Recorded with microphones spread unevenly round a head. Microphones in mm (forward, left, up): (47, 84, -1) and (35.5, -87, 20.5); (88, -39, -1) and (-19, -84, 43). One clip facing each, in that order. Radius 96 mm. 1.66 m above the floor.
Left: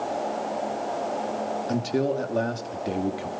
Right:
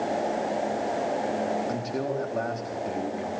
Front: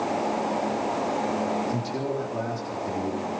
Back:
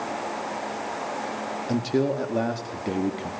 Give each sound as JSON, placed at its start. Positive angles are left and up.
{"t": 1.7, "sound": "a man speaking", "azimuth_deg": 150, "distance_m": 3.5}